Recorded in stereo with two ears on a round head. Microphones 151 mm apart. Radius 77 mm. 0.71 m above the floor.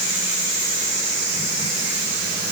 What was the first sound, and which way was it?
Only background noise.